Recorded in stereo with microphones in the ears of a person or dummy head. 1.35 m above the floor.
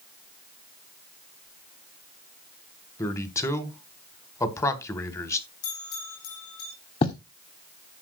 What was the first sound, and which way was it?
A man speaking, 15° left (ahead or behind).